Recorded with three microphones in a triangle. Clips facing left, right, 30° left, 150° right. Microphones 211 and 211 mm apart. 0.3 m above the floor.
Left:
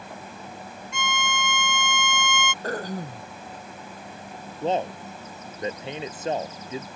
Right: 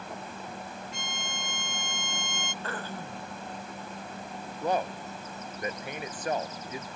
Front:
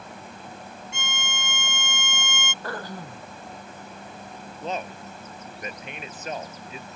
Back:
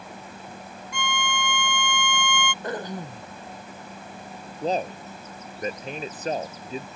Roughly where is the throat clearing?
Behind left.